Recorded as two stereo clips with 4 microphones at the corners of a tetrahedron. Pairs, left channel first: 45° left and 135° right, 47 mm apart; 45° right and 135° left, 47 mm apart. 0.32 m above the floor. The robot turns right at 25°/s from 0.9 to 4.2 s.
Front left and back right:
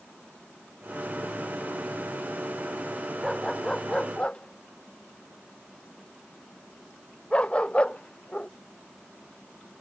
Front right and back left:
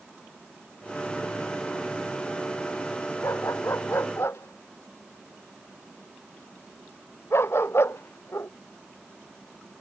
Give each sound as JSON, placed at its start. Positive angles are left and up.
{"t": 3.2, "sound": "a dog barking", "azimuth_deg": -45}